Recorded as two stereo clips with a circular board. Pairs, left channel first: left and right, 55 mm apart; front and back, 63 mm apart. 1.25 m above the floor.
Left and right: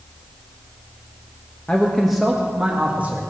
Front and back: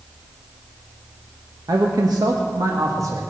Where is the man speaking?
165° left, 1.3 m; by 3.2 s 150° right, 2 m.